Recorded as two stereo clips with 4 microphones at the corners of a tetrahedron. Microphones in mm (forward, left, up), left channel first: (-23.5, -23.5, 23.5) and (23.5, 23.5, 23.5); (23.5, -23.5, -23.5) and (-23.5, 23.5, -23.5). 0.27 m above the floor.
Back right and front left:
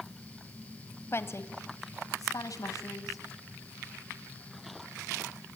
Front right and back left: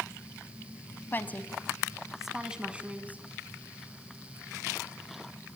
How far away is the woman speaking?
About 1.5 m.